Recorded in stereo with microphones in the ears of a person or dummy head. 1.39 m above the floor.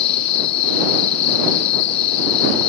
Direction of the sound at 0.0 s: 35° left (ahead or behind).